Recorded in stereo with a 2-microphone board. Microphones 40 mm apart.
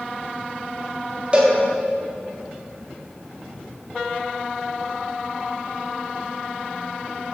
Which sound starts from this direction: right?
A cowbell, at 1.3 s.